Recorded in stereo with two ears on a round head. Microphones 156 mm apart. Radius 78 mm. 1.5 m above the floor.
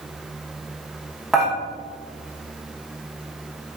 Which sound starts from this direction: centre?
Dishes clattering, at 1.3 s.